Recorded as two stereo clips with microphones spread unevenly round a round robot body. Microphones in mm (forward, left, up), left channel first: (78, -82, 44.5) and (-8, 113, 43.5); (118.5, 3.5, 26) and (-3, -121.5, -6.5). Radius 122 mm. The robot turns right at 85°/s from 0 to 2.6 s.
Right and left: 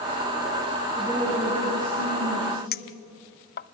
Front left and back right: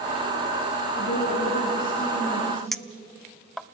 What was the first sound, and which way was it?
A woman speaking, 10° left.